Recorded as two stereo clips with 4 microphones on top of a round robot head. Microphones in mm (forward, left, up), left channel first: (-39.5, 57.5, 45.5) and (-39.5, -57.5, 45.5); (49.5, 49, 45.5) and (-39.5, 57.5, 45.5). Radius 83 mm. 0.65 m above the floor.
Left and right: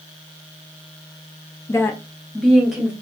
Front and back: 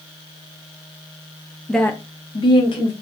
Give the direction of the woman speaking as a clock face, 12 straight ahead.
9 o'clock.